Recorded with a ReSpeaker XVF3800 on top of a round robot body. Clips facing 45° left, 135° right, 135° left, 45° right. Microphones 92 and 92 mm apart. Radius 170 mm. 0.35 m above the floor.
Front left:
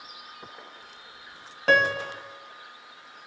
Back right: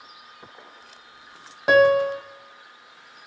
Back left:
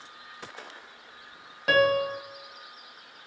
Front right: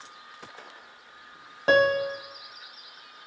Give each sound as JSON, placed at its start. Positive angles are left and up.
{"t": 1.7, "sound": "a piano", "azimuth_deg": -70, "distance_m": 1.0}